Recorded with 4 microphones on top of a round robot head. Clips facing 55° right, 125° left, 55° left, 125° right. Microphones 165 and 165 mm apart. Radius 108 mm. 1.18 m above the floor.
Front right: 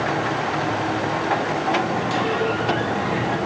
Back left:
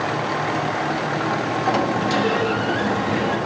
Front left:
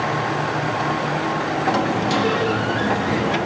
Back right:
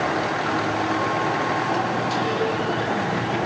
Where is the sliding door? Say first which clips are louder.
Back left 4 dB, front left 4 dB; 80° left, 2.5 m.